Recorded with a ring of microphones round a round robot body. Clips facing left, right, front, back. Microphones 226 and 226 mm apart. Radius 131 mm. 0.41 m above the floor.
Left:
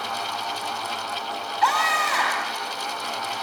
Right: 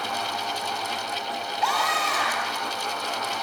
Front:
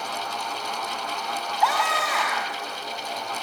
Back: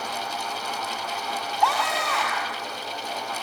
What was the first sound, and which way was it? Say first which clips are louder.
A scream: left 2 dB, even; 85° left.